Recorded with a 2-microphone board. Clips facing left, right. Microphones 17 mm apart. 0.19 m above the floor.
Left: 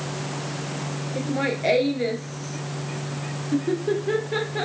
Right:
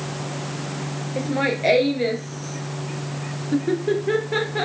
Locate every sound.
1.2 s laughter: 15° right (ahead or behind)